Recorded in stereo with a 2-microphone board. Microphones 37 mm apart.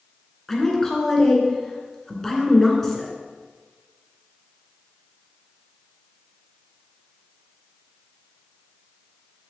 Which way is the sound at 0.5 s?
10° left (ahead or behind).